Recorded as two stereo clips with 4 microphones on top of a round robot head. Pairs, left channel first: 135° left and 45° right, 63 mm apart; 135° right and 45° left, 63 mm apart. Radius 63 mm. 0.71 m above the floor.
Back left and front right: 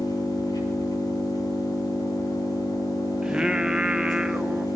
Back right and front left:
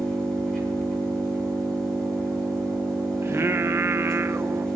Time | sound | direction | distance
0.0 | an engine running | 145° left | 10 m
3.2 | singing | 25° left | 0.8 m